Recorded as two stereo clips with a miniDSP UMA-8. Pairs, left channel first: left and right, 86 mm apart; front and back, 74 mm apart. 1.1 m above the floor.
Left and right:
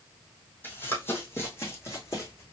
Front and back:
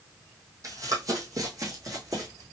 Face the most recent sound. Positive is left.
turn(degrees=145)